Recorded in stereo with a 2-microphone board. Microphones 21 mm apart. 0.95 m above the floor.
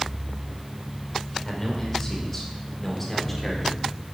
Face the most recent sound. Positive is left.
turn(degrees=10)  # may be behind; listen again after turning